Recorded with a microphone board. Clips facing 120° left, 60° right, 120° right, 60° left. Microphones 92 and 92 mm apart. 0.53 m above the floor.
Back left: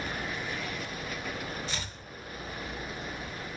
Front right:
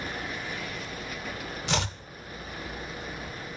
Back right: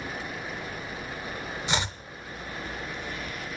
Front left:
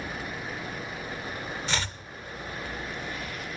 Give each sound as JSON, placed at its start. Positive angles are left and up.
{"t": 1.7, "sound": "chopping", "azimuth_deg": -50, "distance_m": 0.6}